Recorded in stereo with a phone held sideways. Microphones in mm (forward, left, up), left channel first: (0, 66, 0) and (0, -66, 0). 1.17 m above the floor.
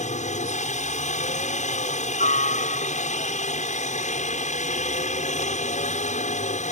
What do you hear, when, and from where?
0.0 s a helicopter: 65° left (ahead or behind)